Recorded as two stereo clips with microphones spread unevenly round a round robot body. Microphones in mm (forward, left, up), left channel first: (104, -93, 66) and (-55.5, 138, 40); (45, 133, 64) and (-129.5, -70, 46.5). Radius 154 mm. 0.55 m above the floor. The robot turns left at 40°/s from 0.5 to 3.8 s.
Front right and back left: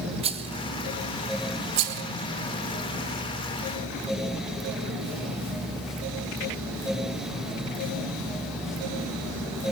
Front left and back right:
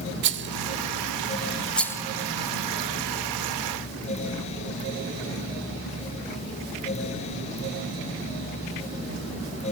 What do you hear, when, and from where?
0.2 s a rattle: 170° right, 0.6 m; by 2.0 s 130° left, 0.6 m